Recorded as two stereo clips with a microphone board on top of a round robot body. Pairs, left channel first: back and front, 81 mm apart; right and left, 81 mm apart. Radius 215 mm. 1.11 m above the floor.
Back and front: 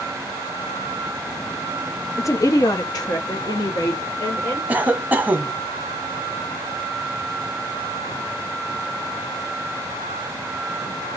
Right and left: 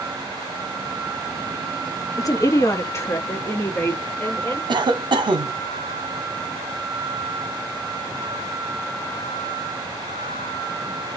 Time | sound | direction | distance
2.2 | a woman speaking | 130° right | 0.7 m
4.7 | a cough | 70° left | 0.7 m